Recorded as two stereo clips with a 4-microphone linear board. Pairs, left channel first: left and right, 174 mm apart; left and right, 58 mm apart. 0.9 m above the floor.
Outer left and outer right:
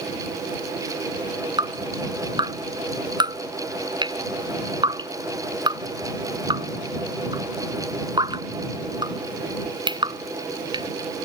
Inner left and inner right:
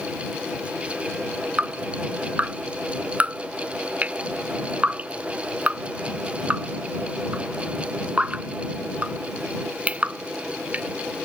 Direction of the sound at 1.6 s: 25° right (ahead or behind).